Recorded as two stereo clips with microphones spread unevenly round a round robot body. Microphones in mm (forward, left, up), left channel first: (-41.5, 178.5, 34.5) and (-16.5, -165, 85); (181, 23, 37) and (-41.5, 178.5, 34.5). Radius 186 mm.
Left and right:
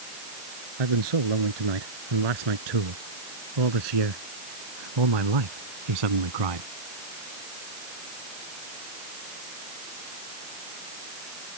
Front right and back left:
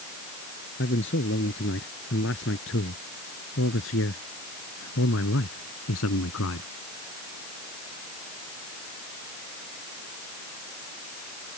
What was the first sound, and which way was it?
A man speaking, 95° right.